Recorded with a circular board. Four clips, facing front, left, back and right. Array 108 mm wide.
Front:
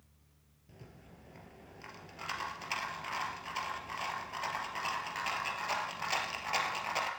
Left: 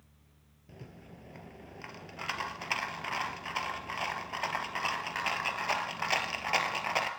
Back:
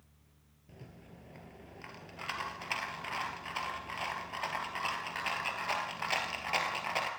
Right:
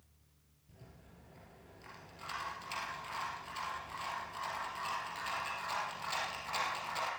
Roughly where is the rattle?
Left.